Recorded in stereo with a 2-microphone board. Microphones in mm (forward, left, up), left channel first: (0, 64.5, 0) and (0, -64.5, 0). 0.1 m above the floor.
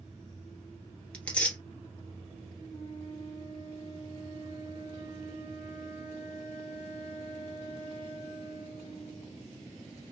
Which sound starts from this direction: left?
A flute, at 2.7 s.